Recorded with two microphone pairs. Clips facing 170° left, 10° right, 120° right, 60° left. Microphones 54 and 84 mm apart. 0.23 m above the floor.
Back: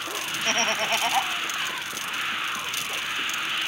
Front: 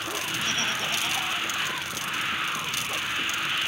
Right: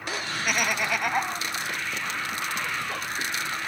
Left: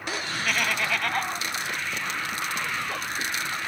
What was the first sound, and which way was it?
Laughter, 165° left.